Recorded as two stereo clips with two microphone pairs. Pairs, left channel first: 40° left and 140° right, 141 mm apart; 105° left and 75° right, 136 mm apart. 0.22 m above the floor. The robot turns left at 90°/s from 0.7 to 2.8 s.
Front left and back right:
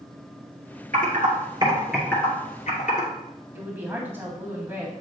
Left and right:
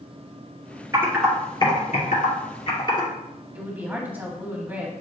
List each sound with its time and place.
0.9 s typing on a keyboard: 140° right, 2.5 m; by 3.1 s 55° left, 2.5 m
3.5 s a woman speaking: 110° right, 1.3 m